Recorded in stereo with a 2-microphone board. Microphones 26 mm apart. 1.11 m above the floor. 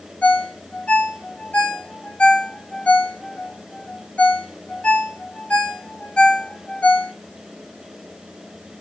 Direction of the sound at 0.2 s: 80° left.